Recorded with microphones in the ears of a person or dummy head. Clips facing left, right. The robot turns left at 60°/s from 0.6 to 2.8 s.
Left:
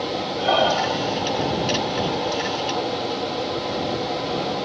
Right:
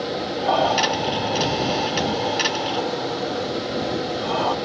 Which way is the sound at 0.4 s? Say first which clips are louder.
Even; 25° left (ahead or behind).